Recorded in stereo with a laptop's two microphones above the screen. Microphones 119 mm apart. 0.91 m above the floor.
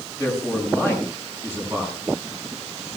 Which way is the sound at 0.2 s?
20° right (ahead or behind).